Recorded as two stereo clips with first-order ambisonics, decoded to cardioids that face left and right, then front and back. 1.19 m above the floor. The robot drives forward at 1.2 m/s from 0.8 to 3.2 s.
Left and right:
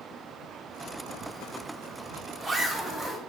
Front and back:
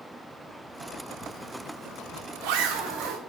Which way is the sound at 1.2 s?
130° right.